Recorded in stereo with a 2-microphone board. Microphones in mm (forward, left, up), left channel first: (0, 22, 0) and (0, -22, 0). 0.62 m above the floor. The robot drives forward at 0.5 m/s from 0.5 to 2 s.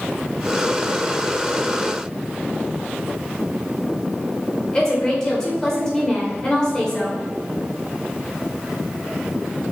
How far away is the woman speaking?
About 2.5 m.